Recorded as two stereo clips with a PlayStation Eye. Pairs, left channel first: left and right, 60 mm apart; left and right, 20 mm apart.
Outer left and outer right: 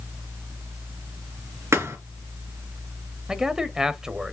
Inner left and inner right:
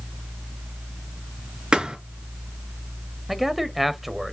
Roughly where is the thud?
Right.